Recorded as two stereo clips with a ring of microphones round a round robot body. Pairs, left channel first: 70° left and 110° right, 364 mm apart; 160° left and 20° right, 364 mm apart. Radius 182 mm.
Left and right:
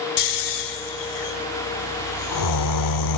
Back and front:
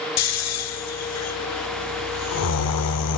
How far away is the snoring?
About 1.2 m.